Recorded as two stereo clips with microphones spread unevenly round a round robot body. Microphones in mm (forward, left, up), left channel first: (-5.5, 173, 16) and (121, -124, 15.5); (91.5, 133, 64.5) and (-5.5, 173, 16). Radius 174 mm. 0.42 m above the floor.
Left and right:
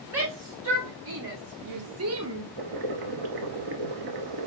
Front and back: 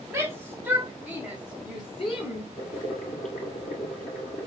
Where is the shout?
120° right, 3 m; by 2.5 s 50° right, 1.3 m.